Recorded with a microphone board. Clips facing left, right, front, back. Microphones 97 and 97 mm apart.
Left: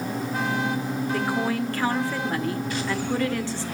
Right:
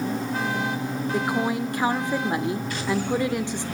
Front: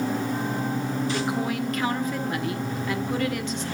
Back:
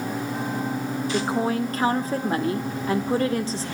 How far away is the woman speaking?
About 1.1 m.